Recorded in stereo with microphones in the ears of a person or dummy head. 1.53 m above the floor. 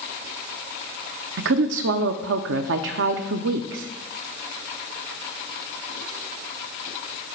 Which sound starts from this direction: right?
A woman speaking, at 1.4 s.